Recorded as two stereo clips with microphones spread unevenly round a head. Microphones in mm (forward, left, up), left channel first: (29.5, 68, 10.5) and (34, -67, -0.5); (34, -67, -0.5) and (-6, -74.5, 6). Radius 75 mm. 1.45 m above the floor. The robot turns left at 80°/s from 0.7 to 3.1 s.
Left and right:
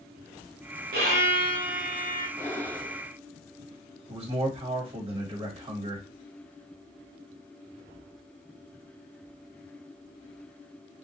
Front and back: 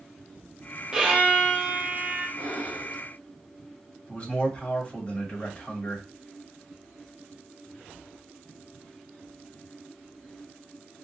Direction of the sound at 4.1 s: 50° right.